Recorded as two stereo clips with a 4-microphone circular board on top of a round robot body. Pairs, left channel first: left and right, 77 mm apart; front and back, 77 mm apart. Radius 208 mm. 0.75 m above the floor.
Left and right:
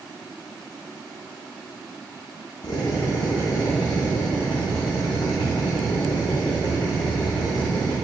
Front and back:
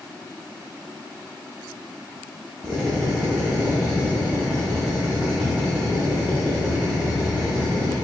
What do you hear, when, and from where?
2.6 s a drill: 100° left, 0.6 m